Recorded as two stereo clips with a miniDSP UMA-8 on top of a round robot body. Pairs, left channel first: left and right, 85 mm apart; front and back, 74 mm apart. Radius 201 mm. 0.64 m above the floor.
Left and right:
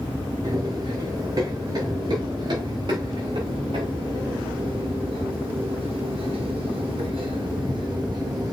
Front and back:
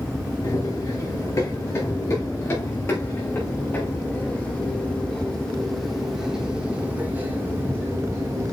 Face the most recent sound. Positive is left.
turn(degrees=-135)